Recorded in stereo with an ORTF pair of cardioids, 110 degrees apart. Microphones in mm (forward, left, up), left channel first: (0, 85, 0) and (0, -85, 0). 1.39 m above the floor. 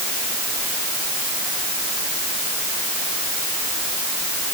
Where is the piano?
No piano in this recording.